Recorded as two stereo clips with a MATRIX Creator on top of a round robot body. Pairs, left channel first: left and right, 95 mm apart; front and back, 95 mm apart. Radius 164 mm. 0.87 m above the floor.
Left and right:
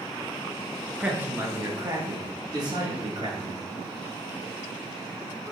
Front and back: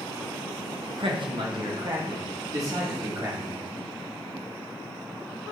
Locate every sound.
1.0 s a man speaking: 165° right, 1.7 m; by 3.6 s 120° right, 3 m